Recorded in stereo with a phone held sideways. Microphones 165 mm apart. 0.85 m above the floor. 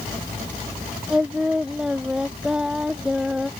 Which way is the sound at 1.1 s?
5° right (ahead or behind).